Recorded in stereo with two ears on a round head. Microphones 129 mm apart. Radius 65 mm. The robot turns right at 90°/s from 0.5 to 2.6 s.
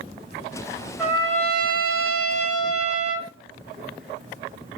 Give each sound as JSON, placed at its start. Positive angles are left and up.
{"t": 1.0, "sound": "a trumpet", "azimuth_deg": -175, "distance_m": 3.5}